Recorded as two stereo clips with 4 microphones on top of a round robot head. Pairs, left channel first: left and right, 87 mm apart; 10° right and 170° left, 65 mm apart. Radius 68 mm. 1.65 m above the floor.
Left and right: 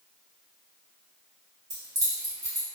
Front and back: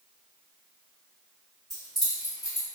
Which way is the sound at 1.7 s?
95° right.